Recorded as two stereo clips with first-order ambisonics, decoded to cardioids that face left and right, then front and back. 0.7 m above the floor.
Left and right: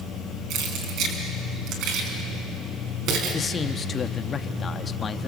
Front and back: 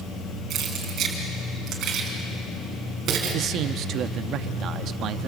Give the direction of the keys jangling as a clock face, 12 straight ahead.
4 o'clock.